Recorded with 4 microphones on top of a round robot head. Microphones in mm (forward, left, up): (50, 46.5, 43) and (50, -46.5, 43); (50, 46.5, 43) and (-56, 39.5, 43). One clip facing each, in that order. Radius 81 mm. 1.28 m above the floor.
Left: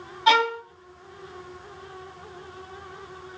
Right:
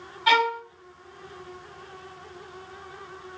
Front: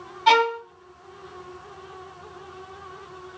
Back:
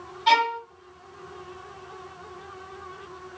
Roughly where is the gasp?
No gasp in this recording.